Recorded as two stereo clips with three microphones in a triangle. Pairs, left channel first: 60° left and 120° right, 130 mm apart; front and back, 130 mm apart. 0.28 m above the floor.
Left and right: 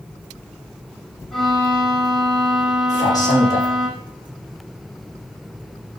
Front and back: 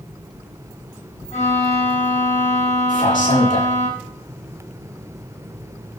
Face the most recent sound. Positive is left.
turn(degrees=0)